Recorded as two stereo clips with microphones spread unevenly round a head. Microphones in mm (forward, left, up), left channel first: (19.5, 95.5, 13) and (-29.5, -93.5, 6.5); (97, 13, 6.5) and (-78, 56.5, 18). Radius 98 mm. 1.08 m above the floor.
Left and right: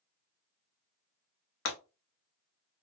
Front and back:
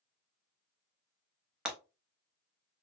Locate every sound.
1.6 s breaking glass: 85° left, 0.8 m